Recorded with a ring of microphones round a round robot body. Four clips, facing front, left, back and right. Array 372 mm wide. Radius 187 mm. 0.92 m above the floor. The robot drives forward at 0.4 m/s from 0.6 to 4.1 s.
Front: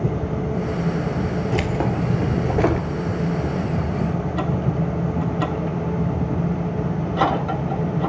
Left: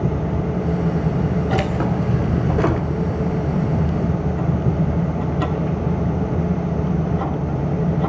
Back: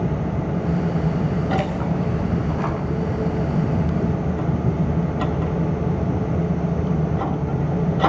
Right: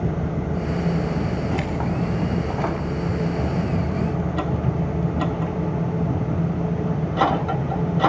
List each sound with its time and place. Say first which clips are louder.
1.5 s keys jangling: left 4 dB, even; 30° left, 2.5 m; by 2.9 s 35° left, 2 m